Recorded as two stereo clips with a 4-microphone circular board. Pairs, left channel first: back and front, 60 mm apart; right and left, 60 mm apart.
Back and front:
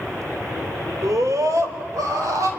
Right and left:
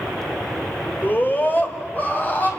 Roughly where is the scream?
Ahead right.